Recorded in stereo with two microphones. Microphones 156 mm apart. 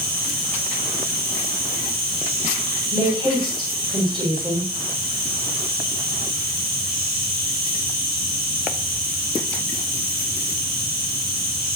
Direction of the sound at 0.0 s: 80° right.